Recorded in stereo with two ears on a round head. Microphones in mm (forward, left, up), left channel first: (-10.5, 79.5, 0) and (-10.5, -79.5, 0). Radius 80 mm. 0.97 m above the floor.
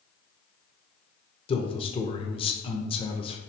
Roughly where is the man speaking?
Left.